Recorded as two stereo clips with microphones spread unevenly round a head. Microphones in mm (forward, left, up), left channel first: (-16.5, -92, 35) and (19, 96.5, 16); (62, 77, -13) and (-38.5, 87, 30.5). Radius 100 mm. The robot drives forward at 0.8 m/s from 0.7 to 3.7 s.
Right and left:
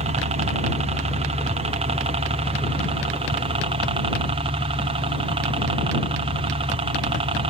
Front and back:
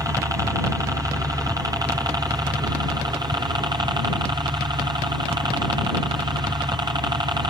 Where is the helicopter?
105° left; by 7.5 s 120° left.